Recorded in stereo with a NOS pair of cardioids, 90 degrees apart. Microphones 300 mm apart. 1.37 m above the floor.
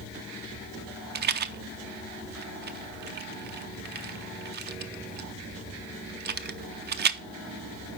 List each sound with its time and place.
1.1 s a rattle: 35° right, 0.6 m